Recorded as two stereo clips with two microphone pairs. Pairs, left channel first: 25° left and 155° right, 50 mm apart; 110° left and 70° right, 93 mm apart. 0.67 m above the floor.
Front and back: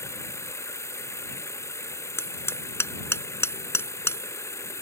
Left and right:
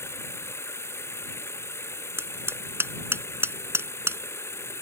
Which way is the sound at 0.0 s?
45° left.